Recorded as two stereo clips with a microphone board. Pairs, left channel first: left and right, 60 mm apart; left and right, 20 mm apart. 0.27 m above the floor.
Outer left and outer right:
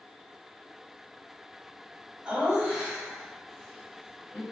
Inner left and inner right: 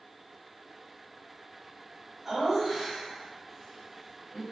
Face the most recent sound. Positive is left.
turn(degrees=30)  # may be behind; listen again after turning